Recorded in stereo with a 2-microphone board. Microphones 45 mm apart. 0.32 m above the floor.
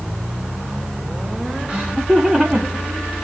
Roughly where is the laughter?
Centre.